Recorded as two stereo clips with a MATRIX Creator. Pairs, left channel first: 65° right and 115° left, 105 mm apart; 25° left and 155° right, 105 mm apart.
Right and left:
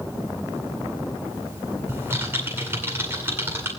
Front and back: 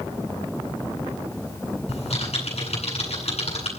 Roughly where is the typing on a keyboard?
Ahead left.